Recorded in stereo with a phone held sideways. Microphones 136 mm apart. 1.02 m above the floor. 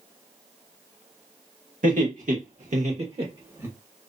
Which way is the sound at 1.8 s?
75° right (ahead or behind).